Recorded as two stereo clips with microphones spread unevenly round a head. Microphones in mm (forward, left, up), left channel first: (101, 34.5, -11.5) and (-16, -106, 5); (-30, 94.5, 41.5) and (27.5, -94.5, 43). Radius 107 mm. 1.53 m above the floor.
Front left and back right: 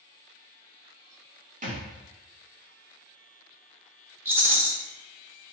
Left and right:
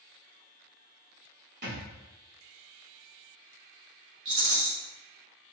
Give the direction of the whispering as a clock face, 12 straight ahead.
No whispering in this recording.